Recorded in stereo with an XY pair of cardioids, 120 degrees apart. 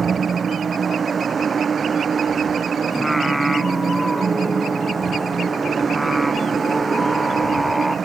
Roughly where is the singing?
Ahead.